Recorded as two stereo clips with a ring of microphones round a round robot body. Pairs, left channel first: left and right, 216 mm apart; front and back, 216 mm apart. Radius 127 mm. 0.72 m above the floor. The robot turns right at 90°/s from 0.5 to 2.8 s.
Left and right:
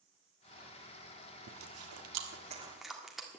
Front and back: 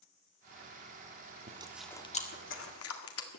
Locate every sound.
1.5 s chewing: 120° right, 1.7 m; by 3.4 s straight ahead, 1.7 m